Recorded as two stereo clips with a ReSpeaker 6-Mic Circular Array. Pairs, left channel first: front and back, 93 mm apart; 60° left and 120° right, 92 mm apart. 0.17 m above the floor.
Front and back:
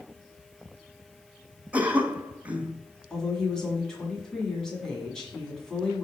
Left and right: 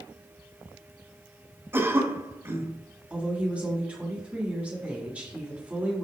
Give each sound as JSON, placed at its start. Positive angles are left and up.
{"t": 1.7, "sound": "a cough", "azimuth_deg": -125, "distance_m": 1.1}
{"t": 3.1, "sound": "a woman speaking", "azimuth_deg": -75, "distance_m": 1.5}